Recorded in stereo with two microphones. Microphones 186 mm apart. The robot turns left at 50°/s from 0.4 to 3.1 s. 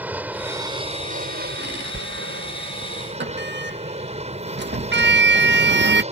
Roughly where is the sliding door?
Right.